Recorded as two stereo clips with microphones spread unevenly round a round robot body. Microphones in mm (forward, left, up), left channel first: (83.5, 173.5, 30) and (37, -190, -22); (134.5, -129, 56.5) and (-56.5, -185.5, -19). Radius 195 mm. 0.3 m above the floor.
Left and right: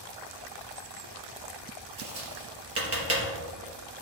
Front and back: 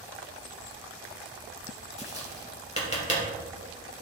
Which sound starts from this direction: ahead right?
Tapping, at 2.0 s.